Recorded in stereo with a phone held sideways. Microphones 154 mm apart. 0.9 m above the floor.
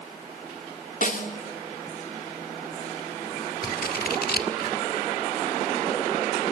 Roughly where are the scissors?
Left.